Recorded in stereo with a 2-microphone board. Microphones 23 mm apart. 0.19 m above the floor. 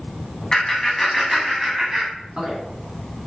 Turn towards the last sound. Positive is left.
turn(degrees=-35)  # may be behind; listen again after turning